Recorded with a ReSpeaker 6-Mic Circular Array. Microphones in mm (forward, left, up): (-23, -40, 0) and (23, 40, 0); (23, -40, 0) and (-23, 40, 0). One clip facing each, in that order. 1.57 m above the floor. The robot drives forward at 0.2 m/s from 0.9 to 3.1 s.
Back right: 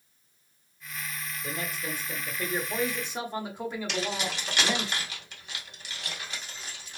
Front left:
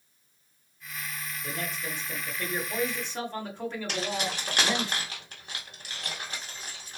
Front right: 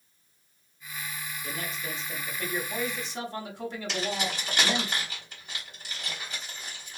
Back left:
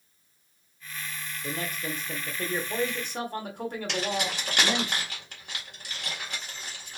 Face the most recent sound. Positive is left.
turn(degrees=100)